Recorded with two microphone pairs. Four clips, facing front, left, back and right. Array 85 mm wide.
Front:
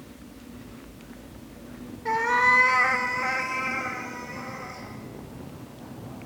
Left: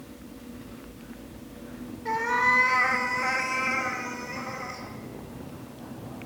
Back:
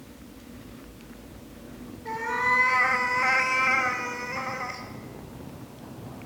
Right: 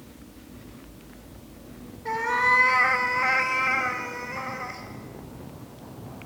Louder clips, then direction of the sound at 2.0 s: Right 1 dB, front 5 dB; straight ahead.